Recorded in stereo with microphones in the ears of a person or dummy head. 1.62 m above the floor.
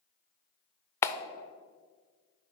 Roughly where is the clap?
Centre.